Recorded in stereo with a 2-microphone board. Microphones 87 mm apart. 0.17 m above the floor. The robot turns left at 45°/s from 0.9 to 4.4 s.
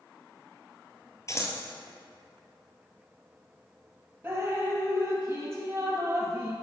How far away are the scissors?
About 1.1 m.